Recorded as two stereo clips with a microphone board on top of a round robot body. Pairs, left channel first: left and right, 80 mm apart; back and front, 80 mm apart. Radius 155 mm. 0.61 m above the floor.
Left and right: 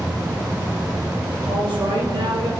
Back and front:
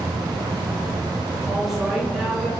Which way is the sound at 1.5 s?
90° right.